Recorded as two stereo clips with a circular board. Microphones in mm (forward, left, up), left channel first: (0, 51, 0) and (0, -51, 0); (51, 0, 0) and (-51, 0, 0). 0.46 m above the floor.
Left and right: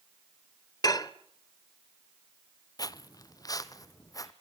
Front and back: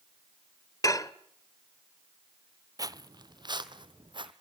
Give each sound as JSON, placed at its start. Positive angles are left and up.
{"t": 0.8, "sound": "dishes clattering", "azimuth_deg": 50, "distance_m": 1.1}
{"t": 2.8, "sound": "footsteps", "azimuth_deg": 135, "distance_m": 0.7}